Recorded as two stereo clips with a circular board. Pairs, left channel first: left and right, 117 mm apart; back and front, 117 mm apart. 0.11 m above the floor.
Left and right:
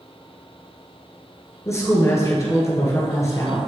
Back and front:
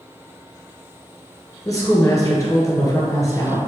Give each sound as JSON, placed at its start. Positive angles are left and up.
{"t": 1.6, "sound": "a woman speaking", "azimuth_deg": 135, "distance_m": 1.9}